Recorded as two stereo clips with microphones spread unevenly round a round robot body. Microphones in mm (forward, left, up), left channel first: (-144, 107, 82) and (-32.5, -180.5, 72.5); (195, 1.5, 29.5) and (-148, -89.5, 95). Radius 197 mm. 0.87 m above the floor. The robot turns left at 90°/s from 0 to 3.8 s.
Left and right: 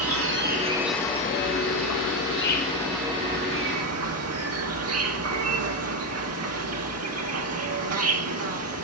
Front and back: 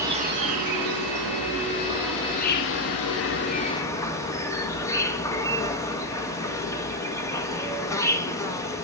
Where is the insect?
75° right, 1.5 m; by 8.8 s 55° right, 1.5 m.